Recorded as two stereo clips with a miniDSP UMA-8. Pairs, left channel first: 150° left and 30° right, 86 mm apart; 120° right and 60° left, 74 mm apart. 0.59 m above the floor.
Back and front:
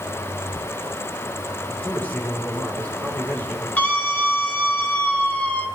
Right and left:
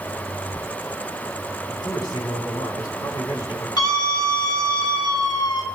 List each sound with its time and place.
1.6 s a man speaking: 140° right, 5 m
3.8 s a scream: 140° right, 2.5 m